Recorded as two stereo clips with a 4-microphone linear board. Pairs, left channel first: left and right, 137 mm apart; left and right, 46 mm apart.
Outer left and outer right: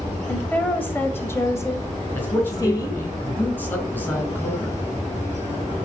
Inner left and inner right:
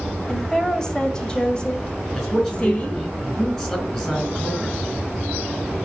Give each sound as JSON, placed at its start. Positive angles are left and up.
{"t": 0.3, "sound": "a woman speaking", "side_deg": 10, "distance_m": 2.0}
{"t": 2.1, "sound": "a man speaking", "side_deg": 15, "distance_m": 4.0}